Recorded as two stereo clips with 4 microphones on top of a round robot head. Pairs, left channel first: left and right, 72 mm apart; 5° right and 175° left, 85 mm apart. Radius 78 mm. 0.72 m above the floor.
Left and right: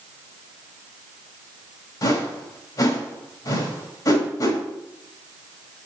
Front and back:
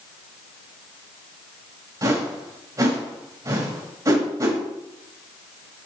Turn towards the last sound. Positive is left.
turn(degrees=125)